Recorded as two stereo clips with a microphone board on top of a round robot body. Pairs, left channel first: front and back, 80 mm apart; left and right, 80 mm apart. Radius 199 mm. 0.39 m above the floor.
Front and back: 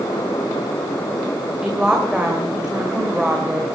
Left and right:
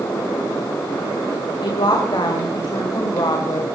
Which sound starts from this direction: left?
A woman speaking, at 1.6 s.